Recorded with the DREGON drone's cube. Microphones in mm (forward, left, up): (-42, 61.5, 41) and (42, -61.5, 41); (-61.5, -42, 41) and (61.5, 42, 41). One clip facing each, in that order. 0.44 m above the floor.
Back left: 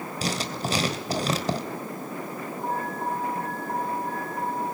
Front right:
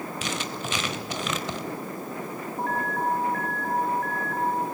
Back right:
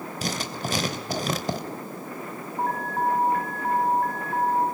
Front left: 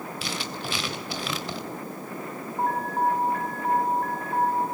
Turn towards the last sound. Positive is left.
turn(degrees=-55)